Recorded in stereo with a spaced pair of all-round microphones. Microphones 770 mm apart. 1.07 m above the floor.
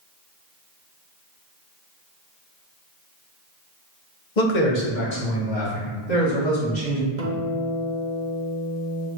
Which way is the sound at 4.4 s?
70° left (ahead or behind).